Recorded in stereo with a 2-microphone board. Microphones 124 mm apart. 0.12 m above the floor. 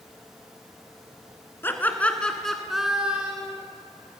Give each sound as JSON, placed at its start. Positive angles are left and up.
{"t": 1.6, "sound": "laughter", "side_deg": 20, "distance_m": 1.2}